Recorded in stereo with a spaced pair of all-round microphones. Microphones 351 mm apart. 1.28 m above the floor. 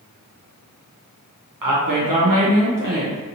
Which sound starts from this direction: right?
A woman speaking, at 1.6 s.